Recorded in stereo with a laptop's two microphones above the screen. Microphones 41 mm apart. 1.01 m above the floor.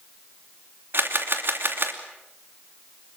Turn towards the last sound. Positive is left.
turn(degrees=-65)  # may be behind; listen again after turning